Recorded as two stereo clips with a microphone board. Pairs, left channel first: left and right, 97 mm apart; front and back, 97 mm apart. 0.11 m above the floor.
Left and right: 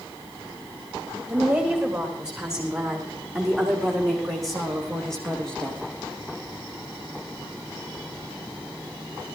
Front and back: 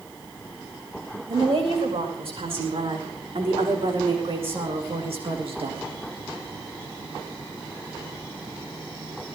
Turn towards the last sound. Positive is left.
turn(degrees=170)